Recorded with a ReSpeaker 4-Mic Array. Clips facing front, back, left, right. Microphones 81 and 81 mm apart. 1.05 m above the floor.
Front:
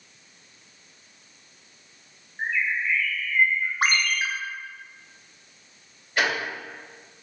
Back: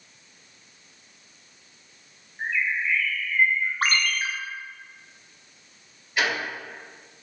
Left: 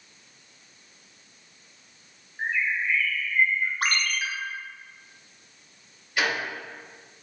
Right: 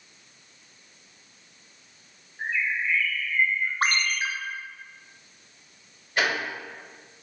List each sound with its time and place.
2.4 s a bird: 50° left, 0.6 m
3.8 s a ringtone: 65° right, 0.5 m
6.2 s ticking: 40° right, 1.7 m